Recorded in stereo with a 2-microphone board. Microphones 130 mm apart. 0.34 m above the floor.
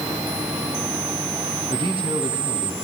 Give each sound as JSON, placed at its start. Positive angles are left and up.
{"t": 1.7, "sound": "a man speaking", "side_deg": -45, "distance_m": 5.0}